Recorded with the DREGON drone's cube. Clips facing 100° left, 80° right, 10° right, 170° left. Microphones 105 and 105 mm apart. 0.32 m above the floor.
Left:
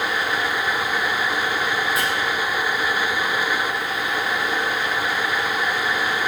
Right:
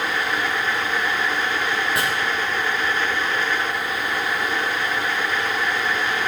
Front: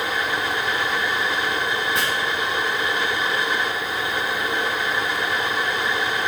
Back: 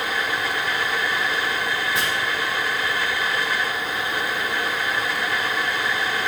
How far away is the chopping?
About 4.5 m.